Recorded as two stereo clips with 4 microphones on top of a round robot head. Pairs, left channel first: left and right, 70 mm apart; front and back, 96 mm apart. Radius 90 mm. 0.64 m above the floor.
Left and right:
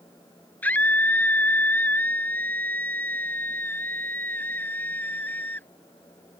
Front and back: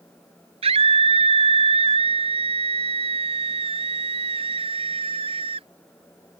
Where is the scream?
165° left; by 5.7 s 160° left.